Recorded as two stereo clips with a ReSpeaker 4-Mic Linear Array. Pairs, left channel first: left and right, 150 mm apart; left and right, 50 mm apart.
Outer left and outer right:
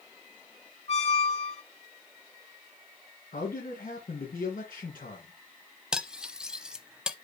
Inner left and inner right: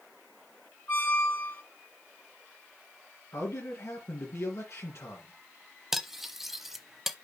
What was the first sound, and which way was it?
A squeak, 40° left (ahead or behind).